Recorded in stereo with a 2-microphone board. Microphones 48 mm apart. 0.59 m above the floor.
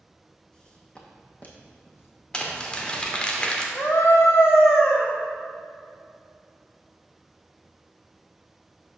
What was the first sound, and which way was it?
Footsteps, 15° left (ahead or behind).